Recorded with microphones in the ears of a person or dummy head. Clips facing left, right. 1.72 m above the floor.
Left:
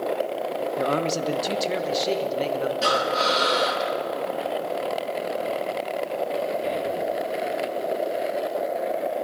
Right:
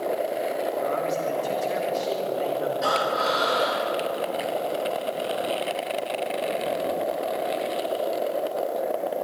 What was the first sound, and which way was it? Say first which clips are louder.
A man speaking: left 1 dB; 65° left (ahead or behind).